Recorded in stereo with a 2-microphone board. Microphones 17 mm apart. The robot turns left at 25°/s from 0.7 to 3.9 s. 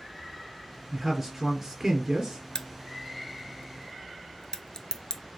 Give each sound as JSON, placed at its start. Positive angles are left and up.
{"t": 0.9, "sound": "a man speaking", "azimuth_deg": -10, "distance_m": 1.5}
{"t": 2.5, "sound": "a crack", "side_deg": 50, "distance_m": 0.5}